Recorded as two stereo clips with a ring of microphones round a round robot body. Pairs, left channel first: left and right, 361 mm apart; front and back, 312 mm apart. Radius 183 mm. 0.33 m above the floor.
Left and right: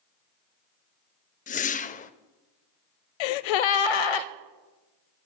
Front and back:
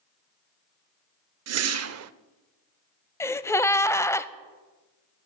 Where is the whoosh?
155° left, 0.5 m.